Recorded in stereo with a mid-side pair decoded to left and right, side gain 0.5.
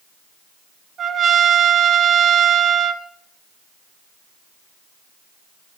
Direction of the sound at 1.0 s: 55° right.